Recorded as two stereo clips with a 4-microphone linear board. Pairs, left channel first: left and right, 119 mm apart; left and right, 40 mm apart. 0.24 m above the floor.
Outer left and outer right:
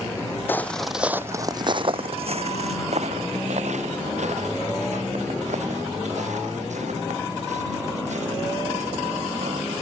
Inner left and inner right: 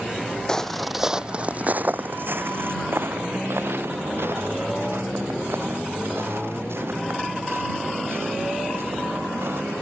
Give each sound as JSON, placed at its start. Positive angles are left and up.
{"t": 0.5, "sound": "footsteps", "side_deg": 20}